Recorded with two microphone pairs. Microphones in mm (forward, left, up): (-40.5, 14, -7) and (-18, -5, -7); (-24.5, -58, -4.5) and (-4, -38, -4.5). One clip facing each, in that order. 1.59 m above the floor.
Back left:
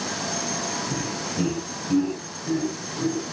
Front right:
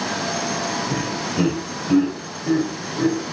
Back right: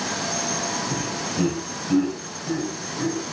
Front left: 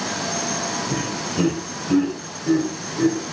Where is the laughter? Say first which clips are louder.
Front right 5 dB, front left 2 dB; 10° left, 6 m.